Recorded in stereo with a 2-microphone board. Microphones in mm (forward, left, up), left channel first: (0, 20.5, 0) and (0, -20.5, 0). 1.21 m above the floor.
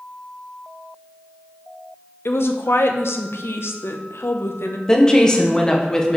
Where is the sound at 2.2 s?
70° left (ahead or behind), 0.7 m.